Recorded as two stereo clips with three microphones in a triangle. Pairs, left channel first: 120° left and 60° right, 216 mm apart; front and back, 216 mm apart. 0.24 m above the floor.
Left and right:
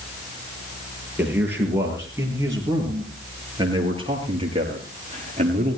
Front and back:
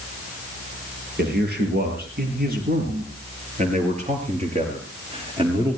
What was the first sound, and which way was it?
A man speaking, 140° right.